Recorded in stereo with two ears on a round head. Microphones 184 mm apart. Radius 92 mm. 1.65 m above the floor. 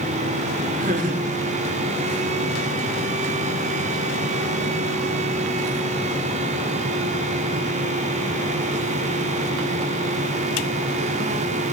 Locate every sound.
0.8 s laughter: 45° right (ahead or behind), 5 m; by 2.7 s 35° right (ahead or behind), 3.5 m